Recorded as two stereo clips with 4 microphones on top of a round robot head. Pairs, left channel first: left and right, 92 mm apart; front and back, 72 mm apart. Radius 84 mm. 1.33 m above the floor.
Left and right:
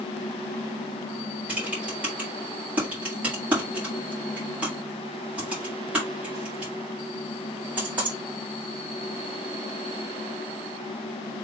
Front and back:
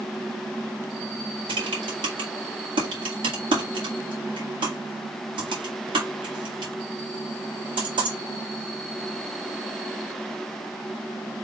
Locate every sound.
1.5 s typing on a keyboard: 170° right, 1.9 m